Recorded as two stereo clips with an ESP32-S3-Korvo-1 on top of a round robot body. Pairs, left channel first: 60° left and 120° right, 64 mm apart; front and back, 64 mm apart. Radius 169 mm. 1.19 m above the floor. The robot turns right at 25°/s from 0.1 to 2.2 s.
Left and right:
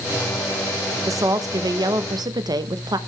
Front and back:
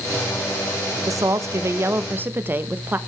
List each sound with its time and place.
1.1 s a woman speaking: 150° right, 1.2 m; by 3.0 s 125° right, 1.2 m